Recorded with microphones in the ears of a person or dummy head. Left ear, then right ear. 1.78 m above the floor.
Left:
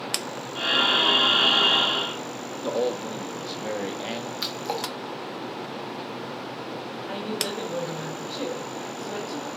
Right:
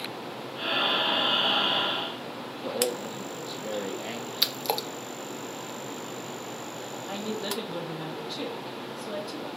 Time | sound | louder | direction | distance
0.6 | breathing | left 5 dB | 45° left (ahead or behind) | 1.7 m
2.6 | a man speaking | left 3 dB | 10° left (ahead or behind) | 0.6 m
4.4 | a splash | right 3 dB | 30° right (ahead or behind) | 0.5 m
7.1 | a woman speaking | left 3 dB | 10° right (ahead or behind) | 1.2 m